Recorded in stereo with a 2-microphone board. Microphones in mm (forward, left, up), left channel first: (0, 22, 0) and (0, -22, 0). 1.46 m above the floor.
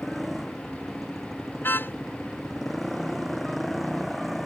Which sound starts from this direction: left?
A car horn, at 1.6 s.